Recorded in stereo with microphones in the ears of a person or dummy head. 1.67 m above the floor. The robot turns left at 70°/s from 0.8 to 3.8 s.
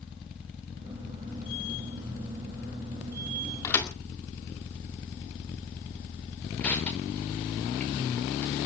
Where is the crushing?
5° left (ahead or behind), 5 m.